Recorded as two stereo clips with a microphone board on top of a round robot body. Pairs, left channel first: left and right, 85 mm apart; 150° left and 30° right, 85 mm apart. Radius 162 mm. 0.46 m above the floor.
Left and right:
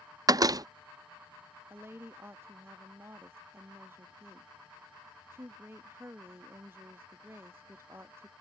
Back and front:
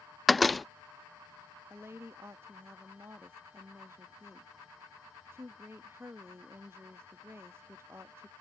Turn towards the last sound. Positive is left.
turn(degrees=-55)